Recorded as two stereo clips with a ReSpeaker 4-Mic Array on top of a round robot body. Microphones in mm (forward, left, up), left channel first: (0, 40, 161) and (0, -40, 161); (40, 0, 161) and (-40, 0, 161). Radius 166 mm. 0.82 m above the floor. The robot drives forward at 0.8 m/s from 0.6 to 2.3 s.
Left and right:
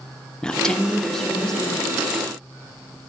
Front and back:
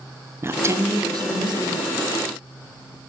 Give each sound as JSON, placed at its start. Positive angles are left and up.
{"t": 0.4, "sound": "a woman speaking", "azimuth_deg": 165, "distance_m": 0.6}